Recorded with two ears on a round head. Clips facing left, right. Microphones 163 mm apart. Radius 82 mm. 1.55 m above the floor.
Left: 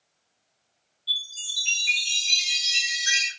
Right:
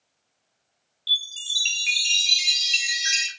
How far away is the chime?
About 1.1 m.